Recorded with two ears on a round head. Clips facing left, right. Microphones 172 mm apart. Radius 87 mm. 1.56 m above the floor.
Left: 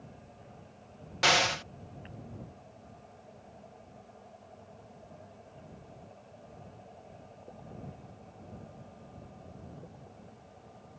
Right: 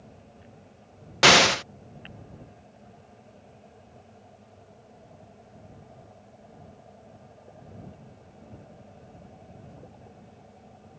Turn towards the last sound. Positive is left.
turn(degrees=-65)  # may be behind; listen again after turning